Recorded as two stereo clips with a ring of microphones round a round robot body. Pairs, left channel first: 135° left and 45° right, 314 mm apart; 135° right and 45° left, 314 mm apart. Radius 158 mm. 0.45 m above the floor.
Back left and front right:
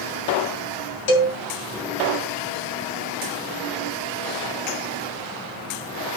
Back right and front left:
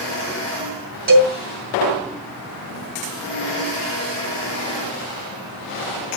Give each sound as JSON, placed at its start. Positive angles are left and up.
{"t": 1.1, "sound": "a cowbell", "azimuth_deg": 105, "distance_m": 3.5}